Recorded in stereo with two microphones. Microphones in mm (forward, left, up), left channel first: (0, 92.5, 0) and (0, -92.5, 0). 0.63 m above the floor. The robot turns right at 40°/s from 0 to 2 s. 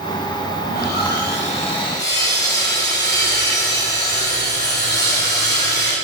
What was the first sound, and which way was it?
Sawing, 50° left.